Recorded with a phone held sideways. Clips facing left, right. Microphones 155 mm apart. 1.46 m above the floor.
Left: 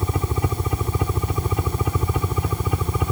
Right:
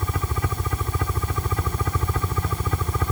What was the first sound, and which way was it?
A helicopter, 20° left (ahead or behind).